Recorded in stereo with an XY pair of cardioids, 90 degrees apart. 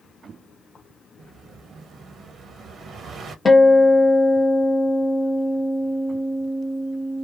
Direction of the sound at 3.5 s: 30° left.